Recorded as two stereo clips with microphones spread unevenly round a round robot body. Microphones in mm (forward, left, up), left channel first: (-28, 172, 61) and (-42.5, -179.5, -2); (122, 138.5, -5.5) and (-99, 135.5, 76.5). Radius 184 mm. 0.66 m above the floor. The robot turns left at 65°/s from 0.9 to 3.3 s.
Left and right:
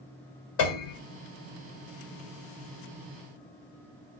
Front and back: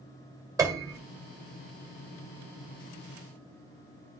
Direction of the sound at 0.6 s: 105° left.